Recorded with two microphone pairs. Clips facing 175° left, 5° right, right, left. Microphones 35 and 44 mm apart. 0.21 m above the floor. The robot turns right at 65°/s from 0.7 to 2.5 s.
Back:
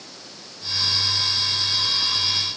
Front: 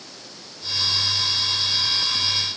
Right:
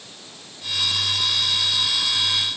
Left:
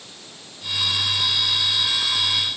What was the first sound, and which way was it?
Only background noise.